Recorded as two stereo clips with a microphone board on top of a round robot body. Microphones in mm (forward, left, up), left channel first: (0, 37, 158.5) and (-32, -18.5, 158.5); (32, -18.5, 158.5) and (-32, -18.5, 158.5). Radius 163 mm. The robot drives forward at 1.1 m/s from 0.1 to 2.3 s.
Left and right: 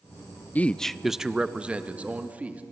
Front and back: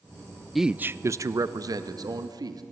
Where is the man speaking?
90° left, 0.7 m; by 2.6 s 170° left, 2 m.